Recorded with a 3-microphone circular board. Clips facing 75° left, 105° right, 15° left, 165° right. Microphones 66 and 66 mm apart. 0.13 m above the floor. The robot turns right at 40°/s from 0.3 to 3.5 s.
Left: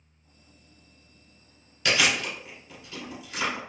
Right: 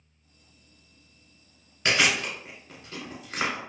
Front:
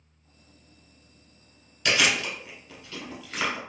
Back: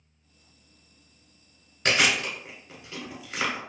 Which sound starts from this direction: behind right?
Chewing, at 1.9 s.